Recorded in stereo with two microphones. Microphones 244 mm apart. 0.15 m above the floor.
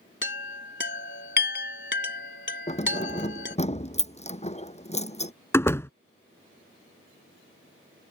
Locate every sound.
0.2 s a chime: 50° left (ahead or behind)
2.7 s keys jangling: 25° left (ahead or behind)
5.5 s a door slam: 10° left (ahead or behind)